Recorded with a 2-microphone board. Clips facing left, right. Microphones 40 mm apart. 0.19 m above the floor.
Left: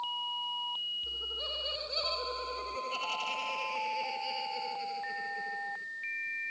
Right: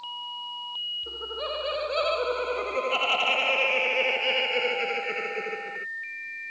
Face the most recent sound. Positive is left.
turn(degrees=-65)  # may be behind; listen again after turning